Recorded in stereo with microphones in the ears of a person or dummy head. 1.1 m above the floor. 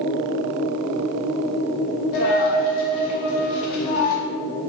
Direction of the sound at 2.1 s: 50° left (ahead or behind).